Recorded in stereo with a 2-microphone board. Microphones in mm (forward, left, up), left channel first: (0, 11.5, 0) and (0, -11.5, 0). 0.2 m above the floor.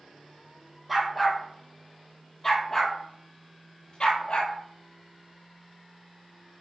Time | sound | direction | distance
0.9 | a dog barking | 5° right (ahead or behind) | 2.5 m